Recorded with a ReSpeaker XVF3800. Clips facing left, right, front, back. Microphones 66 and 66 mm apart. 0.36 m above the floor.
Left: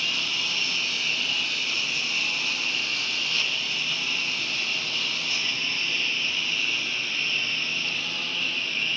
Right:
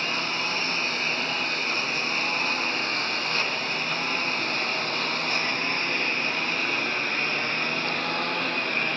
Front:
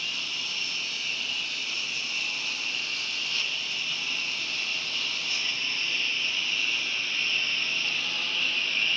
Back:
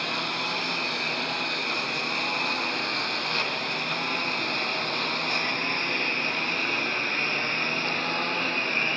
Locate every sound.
0.0 s a lawn mower: 140° right; by 9.0 s 130° right